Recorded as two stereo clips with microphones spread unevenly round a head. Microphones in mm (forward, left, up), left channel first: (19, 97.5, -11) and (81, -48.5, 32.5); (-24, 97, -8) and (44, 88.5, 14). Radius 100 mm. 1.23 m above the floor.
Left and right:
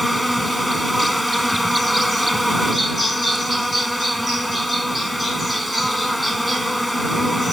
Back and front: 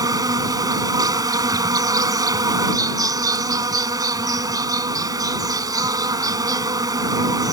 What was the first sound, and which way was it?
An insect, 20° left.